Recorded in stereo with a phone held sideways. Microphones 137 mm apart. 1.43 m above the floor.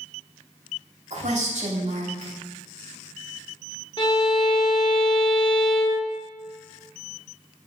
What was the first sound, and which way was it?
A woman speaking, 60° right (ahead or behind).